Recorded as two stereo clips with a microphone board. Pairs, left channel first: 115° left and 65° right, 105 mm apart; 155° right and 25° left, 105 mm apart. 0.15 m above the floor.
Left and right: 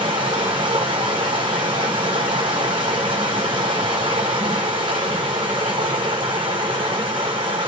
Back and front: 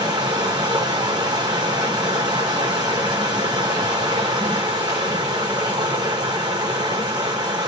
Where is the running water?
25° right, 1.4 m.